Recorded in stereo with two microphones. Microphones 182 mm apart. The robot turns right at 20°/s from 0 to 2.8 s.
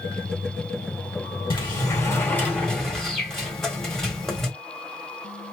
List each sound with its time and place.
1.5 s a sliding door: 25° left (ahead or behind), 1.7 m; by 4.5 s centre (ahead or behind), 1.7 m